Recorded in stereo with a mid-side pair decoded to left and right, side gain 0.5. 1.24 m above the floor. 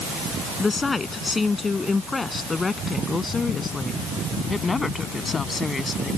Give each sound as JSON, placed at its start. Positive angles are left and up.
{"t": 0.6, "sound": "a woman speaking", "azimuth_deg": 25}